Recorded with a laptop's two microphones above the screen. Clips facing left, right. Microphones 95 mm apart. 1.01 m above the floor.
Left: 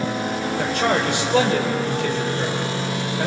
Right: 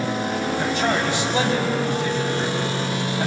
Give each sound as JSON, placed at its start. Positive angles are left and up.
{"t": 0.6, "sound": "a man speaking", "side_deg": 70, "distance_m": 4.5}